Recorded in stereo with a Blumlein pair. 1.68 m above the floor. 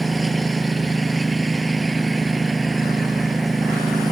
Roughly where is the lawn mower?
Ahead.